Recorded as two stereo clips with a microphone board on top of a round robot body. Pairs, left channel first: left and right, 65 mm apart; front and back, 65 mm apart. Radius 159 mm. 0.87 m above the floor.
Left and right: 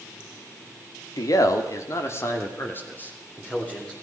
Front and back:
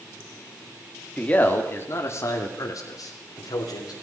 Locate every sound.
1.2 s a man speaking: 70° left, 2.5 m; by 3.9 s 20° left, 4 m